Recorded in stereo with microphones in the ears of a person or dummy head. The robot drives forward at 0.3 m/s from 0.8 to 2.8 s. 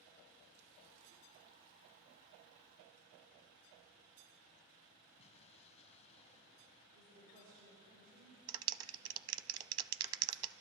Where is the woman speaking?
65° right (ahead or behind), 7 m.